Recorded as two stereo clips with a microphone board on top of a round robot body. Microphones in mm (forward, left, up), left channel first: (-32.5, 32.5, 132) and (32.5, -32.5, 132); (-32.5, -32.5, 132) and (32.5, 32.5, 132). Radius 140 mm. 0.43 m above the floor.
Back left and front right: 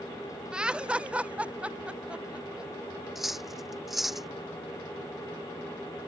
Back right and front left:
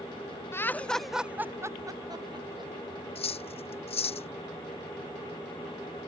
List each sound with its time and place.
0.5 s laughter: 115° right; by 2.7 s 35° left
3.1 s cutlery clinking: 130° right